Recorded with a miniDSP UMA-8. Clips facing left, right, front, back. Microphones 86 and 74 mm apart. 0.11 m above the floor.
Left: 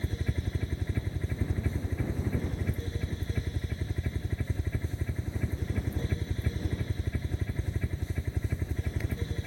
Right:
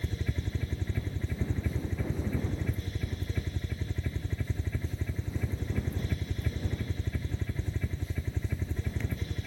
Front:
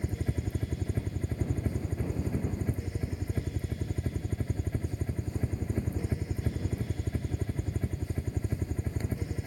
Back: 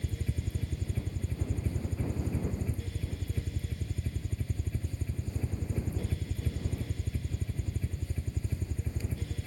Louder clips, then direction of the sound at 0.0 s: Left 1 dB, front 4 dB; 10° left.